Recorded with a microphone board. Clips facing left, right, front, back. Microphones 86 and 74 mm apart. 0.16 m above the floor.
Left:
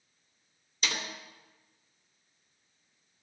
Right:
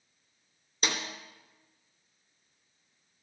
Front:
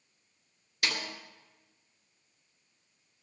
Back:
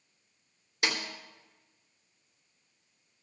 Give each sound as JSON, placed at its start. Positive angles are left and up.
{"t": 0.8, "sound": "a snare drum", "azimuth_deg": -120, "distance_m": 2.5}